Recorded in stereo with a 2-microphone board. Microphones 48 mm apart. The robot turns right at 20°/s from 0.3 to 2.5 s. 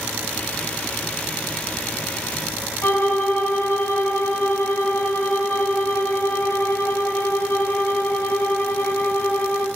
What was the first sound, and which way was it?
A violin, 60° left (ahead or behind).